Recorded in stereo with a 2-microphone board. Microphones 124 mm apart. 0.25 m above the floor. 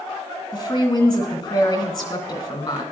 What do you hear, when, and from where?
0.5 s a woman speaking: 40° left (ahead or behind), 2 m